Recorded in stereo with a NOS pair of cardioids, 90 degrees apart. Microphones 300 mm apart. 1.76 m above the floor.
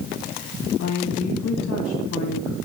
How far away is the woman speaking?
About 2.5 m.